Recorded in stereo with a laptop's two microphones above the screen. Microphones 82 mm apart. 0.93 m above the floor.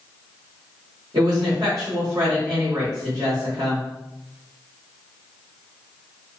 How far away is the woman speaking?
About 1.8 m.